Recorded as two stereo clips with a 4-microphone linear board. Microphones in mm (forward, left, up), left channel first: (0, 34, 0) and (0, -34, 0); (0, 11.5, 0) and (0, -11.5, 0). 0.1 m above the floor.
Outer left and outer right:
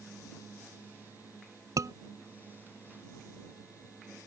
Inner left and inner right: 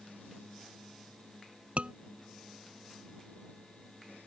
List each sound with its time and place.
1.8 s a scream: 60° right (ahead or behind)